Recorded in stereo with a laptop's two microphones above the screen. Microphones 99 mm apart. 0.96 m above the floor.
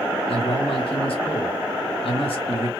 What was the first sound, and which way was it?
A man speaking, 65° left (ahead or behind).